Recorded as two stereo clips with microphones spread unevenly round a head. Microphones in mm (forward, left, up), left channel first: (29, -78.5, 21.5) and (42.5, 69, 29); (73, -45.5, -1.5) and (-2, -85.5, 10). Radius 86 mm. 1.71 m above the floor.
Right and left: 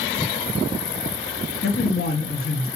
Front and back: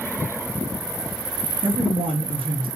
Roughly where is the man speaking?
Behind right.